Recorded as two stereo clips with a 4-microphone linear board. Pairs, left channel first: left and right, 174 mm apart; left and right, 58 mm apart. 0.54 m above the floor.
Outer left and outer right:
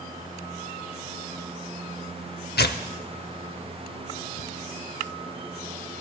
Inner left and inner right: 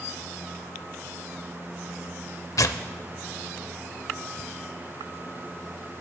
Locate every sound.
2.6 s tearing paper: 75° left (ahead or behind), 0.6 m